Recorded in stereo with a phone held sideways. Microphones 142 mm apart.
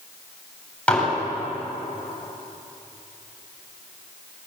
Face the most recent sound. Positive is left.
turn(degrees=10)  # may be behind; listen again after turning